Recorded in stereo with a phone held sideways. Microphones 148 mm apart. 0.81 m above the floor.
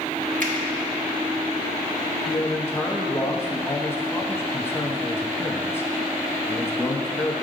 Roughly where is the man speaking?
Centre.